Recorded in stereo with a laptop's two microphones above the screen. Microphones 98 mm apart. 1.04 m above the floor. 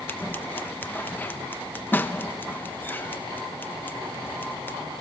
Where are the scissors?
20° left (ahead or behind), 0.9 m.